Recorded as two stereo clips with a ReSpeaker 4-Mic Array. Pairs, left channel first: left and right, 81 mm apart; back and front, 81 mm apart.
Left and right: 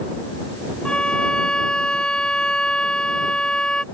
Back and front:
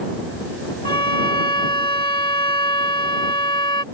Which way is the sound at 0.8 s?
170° left.